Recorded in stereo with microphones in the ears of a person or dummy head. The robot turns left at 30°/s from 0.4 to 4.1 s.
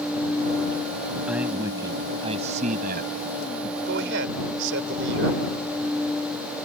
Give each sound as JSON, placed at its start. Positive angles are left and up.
{"t": 1.3, "sound": "a man speaking", "azimuth_deg": -5}
{"t": 3.9, "sound": "a man speaking", "side_deg": -65}